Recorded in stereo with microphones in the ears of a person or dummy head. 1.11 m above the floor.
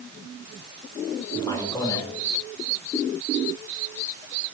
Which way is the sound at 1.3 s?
20° left (ahead or behind).